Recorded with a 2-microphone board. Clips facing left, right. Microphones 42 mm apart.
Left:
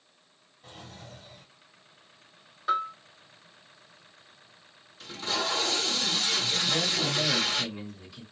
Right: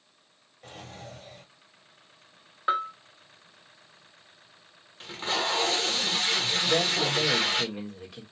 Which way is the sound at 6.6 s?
55° right (ahead or behind).